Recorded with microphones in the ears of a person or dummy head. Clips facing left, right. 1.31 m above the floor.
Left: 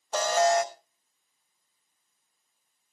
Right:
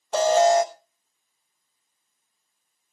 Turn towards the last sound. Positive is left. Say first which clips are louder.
# right 6 dB
turn(degrees=-25)  # may be behind; listen again after turning